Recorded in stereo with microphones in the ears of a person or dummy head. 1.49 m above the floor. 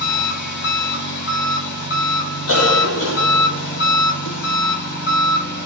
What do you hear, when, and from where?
0.0 s an engine running: 55° left (ahead or behind), 2 m
2.5 s a cough: 70° left (ahead or behind), 1.4 m